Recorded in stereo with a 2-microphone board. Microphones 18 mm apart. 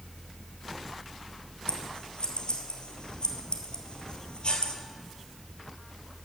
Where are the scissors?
60° left (ahead or behind), 1.5 m.